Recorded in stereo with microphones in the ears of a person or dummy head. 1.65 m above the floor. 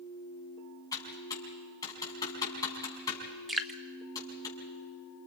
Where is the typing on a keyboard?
15° left (ahead or behind), 5 m.